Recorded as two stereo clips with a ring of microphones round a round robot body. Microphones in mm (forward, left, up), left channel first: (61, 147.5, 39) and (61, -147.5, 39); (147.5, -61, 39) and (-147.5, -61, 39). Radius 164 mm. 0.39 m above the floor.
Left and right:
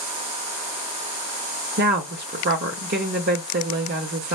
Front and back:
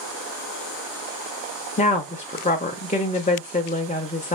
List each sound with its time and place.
1.8 s a woman speaking: 55° right, 0.9 m